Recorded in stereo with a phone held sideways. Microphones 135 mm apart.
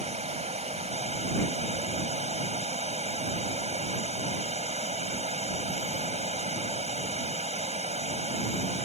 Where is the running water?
55° right (ahead or behind).